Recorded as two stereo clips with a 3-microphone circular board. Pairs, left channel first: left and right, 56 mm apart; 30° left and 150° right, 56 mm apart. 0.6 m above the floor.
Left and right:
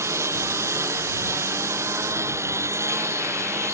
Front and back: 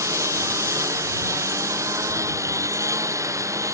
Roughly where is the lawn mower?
Behind right.